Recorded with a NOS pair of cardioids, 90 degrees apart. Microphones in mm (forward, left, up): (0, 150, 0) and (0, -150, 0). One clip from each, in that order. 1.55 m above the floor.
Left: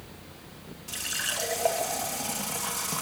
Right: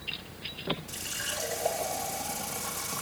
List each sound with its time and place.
0.9 s a running tap: 60° left, 1.8 m